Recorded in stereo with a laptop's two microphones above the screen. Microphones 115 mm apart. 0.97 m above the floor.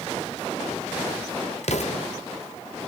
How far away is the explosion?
About 1.1 m.